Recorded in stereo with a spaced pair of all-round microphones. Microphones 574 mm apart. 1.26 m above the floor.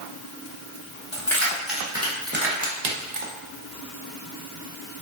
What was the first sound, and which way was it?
Keys jangling, 5° left (ahead or behind).